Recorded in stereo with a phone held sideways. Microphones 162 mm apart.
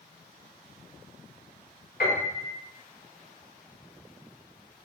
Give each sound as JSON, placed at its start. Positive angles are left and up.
{"t": 2.0, "sound": "a piano", "side_deg": 75, "distance_m": 3.5}